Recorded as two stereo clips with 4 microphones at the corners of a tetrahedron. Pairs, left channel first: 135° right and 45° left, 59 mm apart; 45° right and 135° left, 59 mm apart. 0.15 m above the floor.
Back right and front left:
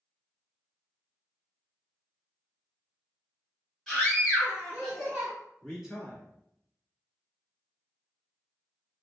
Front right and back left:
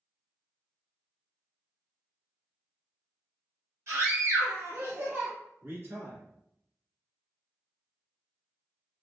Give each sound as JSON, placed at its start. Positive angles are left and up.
{"t": 3.9, "sound": "a scream", "azimuth_deg": 135, "distance_m": 1.7}
{"t": 5.6, "sound": "a man speaking", "azimuth_deg": 120, "distance_m": 1.6}